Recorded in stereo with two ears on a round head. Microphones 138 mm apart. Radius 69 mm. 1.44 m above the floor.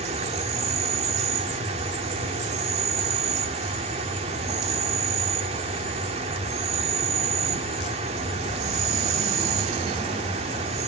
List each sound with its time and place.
0.0 s an insect: 45° right (ahead or behind), 2.5 m